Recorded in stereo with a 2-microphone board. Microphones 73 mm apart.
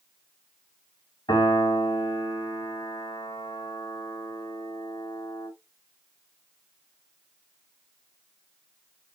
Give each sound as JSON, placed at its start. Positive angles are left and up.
{"t": 1.3, "sound": "a piano", "side_deg": 80, "distance_m": 3.5}